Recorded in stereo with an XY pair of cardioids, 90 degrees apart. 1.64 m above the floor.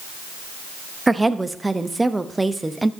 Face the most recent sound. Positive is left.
turn(degrees=-15)